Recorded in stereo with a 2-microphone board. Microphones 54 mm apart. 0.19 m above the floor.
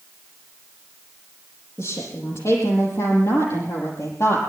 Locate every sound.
1.8 s a woman speaking: 75° left (ahead or behind), 7.5 m; by 4.4 s 65° left (ahead or behind), 6 m